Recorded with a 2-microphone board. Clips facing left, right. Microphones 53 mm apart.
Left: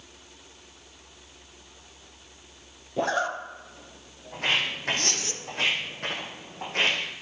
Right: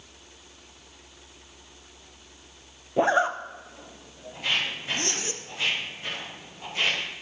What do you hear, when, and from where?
3.0 s a zipper: 25° right (ahead or behind), 0.6 m
4.3 s footsteps: 70° left (ahead or behind), 3.5 m; by 7.0 s 55° left (ahead or behind), 3.5 m